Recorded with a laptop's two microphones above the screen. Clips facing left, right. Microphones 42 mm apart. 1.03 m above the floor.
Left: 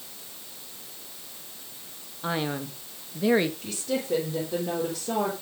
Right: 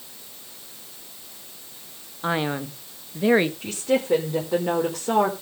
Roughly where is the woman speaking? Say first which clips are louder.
Right 7 dB; right.